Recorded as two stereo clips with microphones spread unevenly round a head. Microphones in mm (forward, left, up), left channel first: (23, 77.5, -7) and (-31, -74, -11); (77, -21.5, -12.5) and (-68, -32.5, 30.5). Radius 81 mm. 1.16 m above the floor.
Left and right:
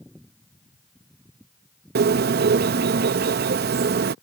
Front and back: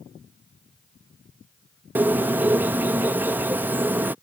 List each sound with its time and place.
1.9 s a bird: 110° right